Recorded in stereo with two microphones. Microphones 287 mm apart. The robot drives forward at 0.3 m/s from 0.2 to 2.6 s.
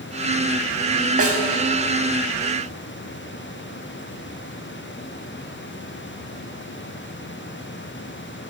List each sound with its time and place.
1.2 s a snare drum: 50° right (ahead or behind), 0.5 m; by 1.4 s 45° right (ahead or behind), 0.6 m